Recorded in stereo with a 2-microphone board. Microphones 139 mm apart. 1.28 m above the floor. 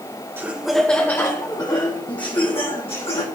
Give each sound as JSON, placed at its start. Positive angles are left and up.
{"t": 0.4, "sound": "laughter", "side_deg": -15, "distance_m": 0.6}